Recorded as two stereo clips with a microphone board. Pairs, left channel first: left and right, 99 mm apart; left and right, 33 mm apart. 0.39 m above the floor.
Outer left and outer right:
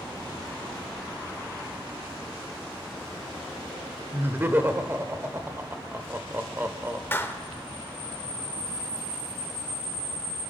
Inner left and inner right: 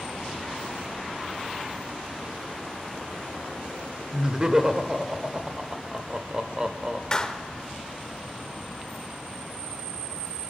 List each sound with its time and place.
4.1 s laughter: 20° right (ahead or behind), 0.9 m
7.1 s a clap: 25° left (ahead or behind), 0.9 m